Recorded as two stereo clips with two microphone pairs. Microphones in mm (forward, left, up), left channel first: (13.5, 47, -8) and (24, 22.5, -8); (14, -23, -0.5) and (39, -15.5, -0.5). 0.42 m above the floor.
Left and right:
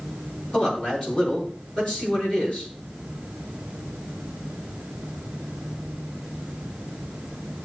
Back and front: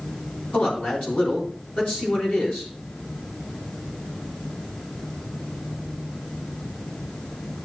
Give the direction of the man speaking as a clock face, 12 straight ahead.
6 o'clock.